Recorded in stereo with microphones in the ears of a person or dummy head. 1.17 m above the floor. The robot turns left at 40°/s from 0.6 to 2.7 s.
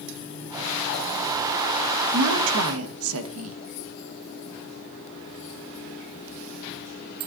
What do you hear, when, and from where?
2.1 s a woman speaking: 60° right (ahead or behind), 1.3 m; by 3.6 s 80° right, 1.3 m